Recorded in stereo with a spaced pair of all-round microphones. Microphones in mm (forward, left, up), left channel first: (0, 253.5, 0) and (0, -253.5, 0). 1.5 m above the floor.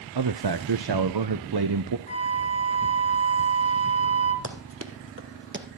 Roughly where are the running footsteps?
Right.